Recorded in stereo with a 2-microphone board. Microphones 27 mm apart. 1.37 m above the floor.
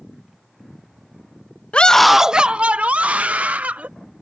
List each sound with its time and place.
1.7 s a scream: 45° left (ahead or behind); by 3.9 s 60° right (ahead or behind)